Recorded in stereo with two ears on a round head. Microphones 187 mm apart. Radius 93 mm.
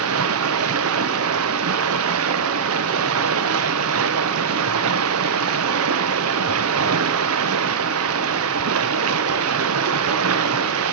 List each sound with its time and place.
0.0 s running water: 75° right (ahead or behind), 0.8 m